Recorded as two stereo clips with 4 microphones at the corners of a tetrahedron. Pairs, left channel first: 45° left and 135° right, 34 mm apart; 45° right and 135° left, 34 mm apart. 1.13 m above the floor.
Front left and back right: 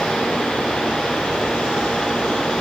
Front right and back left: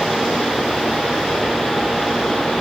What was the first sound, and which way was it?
Only background noise.